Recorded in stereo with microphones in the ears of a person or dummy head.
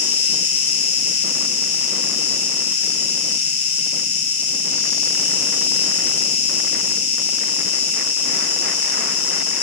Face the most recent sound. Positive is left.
turn(degrees=75)  # may be behind; listen again after turning